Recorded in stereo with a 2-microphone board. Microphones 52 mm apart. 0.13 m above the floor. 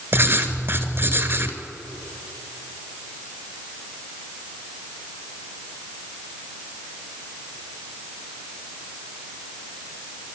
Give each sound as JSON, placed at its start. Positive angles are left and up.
{"t": 0.1, "sound": "writing", "side_deg": -40, "distance_m": 1.8}